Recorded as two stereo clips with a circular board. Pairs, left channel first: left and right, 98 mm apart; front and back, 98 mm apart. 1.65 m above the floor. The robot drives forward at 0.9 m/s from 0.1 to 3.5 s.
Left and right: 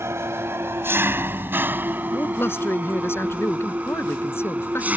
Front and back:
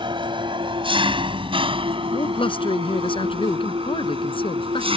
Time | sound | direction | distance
0.0 | an engine running | 150° right | ?
2.1 | a man speaking | 25° left | ?